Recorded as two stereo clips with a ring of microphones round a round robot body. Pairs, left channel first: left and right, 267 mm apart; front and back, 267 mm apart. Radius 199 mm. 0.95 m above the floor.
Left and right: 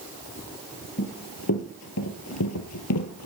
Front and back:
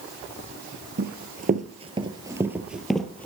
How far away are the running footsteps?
About 1.5 m.